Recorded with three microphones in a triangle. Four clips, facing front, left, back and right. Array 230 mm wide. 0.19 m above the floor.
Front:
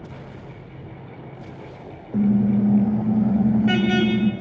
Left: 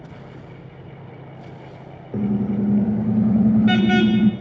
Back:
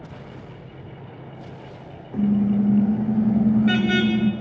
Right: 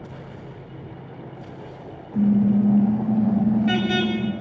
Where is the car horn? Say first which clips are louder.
Right 3 dB, front 1 dB; 60° left, 5 m; by 4.3 s 75° left, 4.5 m.